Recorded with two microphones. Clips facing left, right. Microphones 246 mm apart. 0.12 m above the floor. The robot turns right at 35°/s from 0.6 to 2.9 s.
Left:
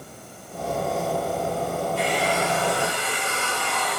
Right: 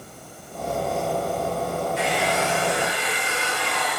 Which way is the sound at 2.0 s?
105° right.